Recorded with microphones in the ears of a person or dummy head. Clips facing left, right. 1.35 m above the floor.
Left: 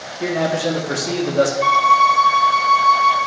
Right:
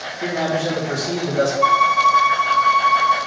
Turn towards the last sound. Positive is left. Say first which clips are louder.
# left 1 dB
turn(degrees=25)  # may be behind; listen again after turning